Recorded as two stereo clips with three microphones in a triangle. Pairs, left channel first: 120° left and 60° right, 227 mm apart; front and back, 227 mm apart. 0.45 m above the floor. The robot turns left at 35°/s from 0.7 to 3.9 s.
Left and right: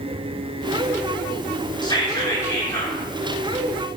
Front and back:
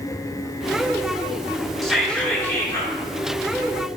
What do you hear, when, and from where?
1.8 s whispering: 90° left, 1.0 m; by 3.0 s 50° left, 1.0 m